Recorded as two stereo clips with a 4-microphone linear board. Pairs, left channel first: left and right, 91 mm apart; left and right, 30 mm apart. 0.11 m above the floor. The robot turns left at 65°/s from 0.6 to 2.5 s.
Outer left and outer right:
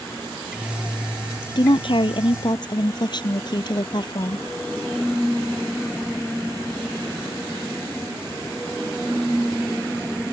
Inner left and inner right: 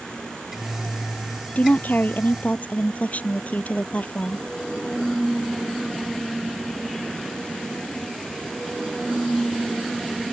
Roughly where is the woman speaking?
Behind left.